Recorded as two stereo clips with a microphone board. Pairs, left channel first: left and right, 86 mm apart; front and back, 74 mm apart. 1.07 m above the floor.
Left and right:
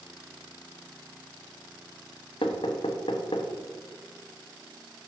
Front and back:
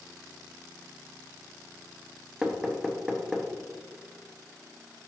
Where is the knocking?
100° left, 0.8 m.